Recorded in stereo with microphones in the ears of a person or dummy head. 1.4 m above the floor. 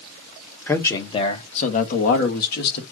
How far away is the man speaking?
About 1.2 m.